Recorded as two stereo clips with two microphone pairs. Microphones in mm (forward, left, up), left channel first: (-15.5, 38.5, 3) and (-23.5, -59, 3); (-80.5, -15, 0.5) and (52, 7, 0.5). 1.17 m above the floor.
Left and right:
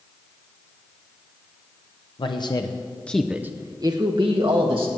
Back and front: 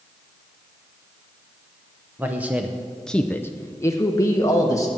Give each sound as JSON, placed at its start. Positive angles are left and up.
{"t": 2.2, "sound": "a man speaking", "azimuth_deg": 85, "distance_m": 1.0}